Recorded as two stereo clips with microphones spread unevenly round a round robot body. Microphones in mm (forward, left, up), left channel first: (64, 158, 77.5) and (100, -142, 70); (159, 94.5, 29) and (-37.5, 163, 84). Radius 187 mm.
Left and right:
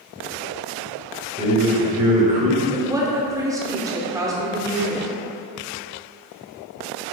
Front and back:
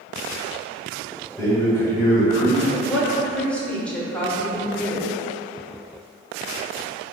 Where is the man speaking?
45° right, 1.2 m.